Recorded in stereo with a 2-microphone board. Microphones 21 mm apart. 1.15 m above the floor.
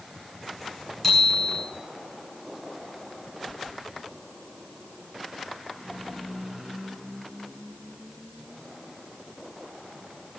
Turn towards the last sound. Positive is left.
turn(degrees=10)  # may be behind; listen again after turning